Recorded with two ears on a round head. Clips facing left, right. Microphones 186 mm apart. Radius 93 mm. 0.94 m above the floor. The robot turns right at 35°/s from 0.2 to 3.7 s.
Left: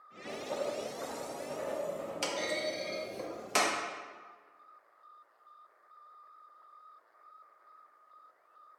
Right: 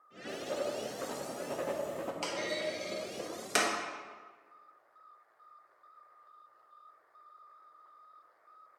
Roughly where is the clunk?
Centre.